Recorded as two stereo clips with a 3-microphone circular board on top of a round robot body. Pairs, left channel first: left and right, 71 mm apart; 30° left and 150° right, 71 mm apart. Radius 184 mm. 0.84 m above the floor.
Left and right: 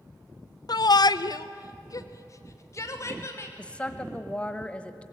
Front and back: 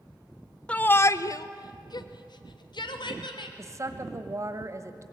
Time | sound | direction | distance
0.7 | a shout | 100° left | 0.6 m
3.6 | a woman speaking | 165° left | 1.3 m